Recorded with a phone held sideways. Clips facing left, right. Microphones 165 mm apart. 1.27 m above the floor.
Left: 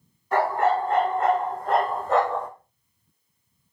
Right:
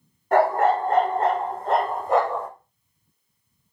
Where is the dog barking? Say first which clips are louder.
Right 3 dB; 50° right (ahead or behind), 1.6 m; by 2.5 s 5° right (ahead or behind), 1.5 m.